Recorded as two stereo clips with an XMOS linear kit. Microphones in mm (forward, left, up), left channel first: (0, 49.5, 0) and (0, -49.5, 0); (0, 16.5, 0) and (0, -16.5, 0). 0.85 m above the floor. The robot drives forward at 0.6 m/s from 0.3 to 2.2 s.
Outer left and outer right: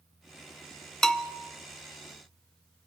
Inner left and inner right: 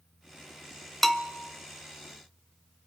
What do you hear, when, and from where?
1.0 s a bell: 5° left (ahead or behind), 0.8 m